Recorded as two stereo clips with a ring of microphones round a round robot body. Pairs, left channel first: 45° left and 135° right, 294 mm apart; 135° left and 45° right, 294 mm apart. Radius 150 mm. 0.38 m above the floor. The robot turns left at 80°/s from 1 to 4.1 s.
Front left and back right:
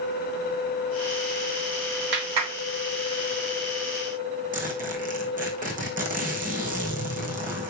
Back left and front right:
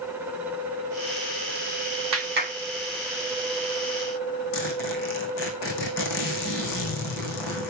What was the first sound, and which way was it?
A clap, 80° right.